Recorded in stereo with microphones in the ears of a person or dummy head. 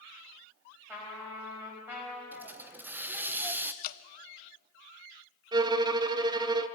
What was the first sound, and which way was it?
A trumpet, 10° right (ahead or behind).